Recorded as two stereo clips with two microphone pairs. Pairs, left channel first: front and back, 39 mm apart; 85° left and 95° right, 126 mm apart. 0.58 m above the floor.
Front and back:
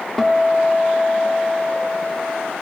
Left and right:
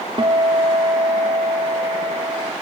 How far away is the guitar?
About 1.3 m.